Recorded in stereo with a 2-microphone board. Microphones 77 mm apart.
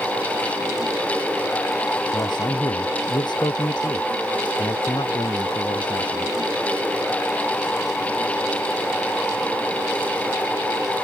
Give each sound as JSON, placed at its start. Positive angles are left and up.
{"t": 2.1, "sound": "a man speaking", "side_deg": 75}